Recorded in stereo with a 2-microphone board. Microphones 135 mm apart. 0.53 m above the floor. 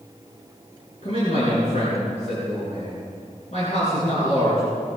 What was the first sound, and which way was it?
A man speaking, 55° left (ahead or behind).